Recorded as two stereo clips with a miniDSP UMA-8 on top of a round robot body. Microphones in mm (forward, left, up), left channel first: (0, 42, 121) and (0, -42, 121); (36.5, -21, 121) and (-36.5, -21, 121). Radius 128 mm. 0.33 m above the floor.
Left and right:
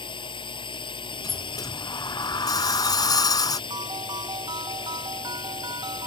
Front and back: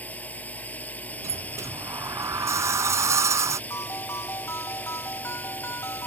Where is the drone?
70° left.